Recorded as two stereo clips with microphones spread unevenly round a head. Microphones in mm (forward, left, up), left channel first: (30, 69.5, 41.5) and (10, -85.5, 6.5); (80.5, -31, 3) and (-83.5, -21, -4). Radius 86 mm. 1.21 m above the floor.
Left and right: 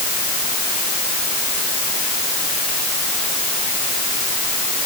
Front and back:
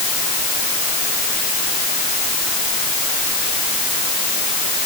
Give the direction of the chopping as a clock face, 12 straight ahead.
No chopping in this recording.